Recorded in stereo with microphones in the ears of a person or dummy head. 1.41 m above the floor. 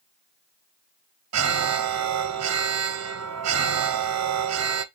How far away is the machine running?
No machine running in this recording.